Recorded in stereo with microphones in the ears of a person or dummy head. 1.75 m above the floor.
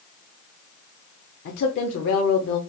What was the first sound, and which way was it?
A woman speaking, 55° left (ahead or behind).